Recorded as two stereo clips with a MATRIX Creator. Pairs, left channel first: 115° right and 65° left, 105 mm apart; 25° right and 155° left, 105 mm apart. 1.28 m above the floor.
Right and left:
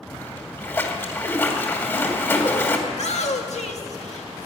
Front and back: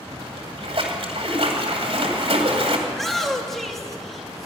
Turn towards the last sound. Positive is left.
turn(degrees=-110)